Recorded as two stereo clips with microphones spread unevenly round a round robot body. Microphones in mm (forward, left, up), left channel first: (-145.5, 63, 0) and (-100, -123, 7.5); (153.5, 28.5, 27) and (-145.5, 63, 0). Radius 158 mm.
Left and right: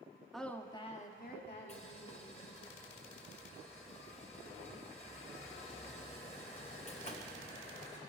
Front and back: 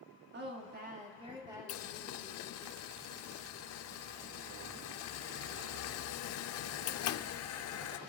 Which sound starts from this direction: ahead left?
Boiling, at 1.7 s.